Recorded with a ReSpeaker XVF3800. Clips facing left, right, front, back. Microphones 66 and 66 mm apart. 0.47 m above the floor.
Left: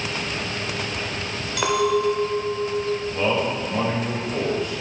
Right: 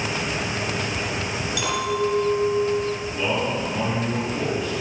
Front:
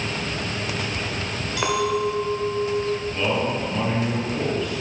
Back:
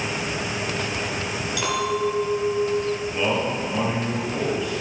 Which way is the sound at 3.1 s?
100° left.